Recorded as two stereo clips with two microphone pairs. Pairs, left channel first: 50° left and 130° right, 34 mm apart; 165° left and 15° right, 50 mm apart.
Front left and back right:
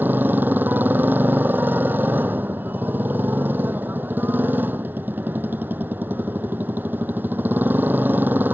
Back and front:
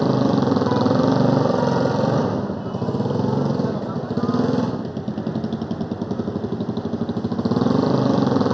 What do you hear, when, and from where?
0.0 s a motorcycle: 105° right